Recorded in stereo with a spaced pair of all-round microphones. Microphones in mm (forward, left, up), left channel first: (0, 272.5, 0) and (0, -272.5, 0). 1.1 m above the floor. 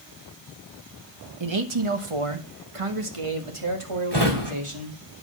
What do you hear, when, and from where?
1.4 s a man speaking: 55° right (ahead or behind), 1.2 m; by 5.0 s 65° right (ahead or behind), 2.5 m
4.1 s a drawer: 50° right (ahead or behind), 2.5 m